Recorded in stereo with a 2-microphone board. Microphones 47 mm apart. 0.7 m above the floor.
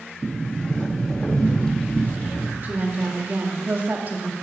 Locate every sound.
0.2 s a sliding door: 15° left (ahead or behind), 1.0 m
2.6 s a woman speaking: 40° right (ahead or behind), 1.5 m